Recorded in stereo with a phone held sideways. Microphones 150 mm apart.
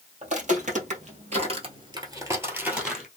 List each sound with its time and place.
0.2 s footsteps: 55° right (ahead or behind), 1.7 m; by 3.1 s centre (ahead or behind), 1.5 m